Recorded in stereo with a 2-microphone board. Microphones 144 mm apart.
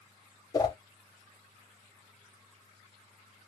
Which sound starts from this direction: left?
A whoosh, at 0.5 s.